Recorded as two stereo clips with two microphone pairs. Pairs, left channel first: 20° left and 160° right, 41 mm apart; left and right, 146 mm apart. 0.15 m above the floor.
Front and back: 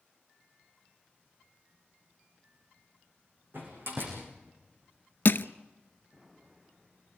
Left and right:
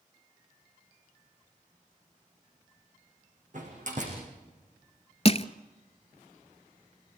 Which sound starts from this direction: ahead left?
Crushing, at 5.2 s.